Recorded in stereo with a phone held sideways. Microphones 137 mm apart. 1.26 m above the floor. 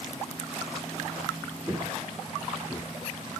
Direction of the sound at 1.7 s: 15° right (ahead or behind).